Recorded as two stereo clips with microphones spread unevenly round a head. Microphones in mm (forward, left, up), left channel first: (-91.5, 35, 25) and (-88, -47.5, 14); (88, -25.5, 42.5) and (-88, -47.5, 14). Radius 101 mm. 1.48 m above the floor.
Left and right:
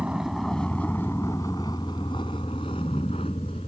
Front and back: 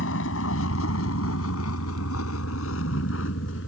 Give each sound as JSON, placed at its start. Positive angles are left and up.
{"t": 0.0, "sound": "a vehicle", "azimuth_deg": -5}